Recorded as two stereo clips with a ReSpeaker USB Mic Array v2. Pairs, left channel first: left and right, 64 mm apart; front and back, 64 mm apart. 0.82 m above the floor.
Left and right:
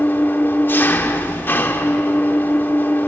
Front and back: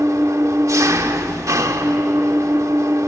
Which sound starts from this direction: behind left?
An engine running, at 0.0 s.